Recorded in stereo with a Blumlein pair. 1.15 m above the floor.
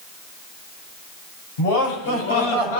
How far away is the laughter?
About 7 m.